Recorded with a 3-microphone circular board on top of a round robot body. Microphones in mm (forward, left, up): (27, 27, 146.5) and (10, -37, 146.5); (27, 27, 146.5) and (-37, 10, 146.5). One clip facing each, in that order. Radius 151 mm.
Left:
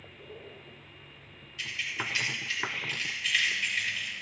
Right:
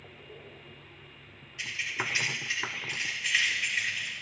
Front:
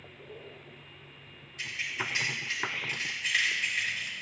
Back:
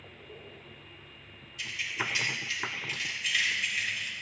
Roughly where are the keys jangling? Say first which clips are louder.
Right 1 dB, back 1 dB; ahead right.